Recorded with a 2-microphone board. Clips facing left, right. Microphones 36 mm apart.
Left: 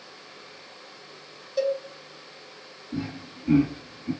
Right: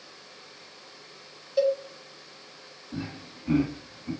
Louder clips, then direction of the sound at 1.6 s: Right 2 dB; 5° right (ahead or behind).